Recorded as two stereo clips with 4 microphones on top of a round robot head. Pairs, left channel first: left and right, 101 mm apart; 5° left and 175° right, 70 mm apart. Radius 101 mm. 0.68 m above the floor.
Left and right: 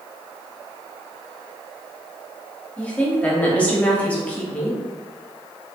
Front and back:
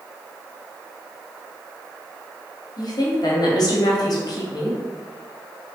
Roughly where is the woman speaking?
Ahead.